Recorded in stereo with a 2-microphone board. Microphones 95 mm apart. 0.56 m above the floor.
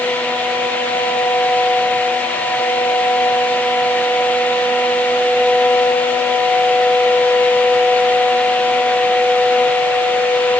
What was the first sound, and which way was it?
Only background noise.